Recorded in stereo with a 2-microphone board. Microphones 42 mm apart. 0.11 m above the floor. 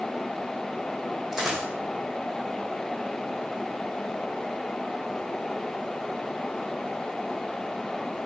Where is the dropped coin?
15° right (ahead or behind), 1.9 m.